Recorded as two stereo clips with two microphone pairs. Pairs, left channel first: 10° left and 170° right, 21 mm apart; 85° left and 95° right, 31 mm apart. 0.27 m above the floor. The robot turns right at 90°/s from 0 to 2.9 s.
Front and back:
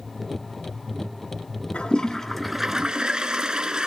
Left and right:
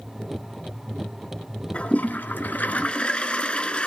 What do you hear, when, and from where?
1.7 s a toilet flushing: 35° left, 1.8 m; by 3.9 s 140° left, 1.8 m